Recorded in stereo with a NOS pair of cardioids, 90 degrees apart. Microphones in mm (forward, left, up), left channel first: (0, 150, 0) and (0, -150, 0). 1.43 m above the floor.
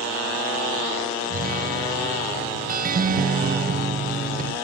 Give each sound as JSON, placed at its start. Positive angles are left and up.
{"t": 1.3, "sound": "a guitar", "azimuth_deg": -30}